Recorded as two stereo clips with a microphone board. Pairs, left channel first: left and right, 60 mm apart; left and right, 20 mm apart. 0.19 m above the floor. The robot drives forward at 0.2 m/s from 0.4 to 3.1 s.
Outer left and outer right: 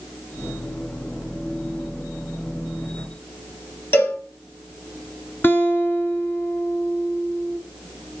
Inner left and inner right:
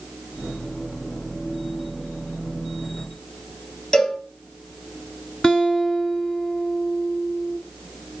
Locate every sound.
3.9 s a cowbell: 50° left (ahead or behind), 4.5 m
5.4 s a guitar: 45° left (ahead or behind), 1.3 m